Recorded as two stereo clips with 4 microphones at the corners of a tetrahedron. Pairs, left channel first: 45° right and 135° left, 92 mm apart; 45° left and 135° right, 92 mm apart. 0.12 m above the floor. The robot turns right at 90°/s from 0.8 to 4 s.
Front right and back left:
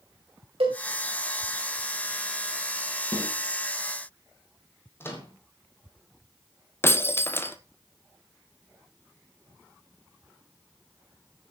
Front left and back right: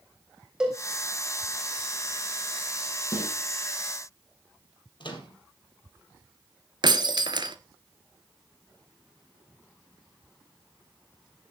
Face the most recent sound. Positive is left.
turn(degrees=-105)